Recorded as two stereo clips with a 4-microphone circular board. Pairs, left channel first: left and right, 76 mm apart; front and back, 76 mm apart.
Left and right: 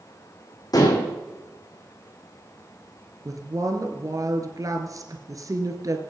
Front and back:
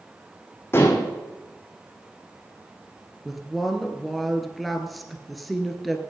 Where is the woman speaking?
90° right, 2 m.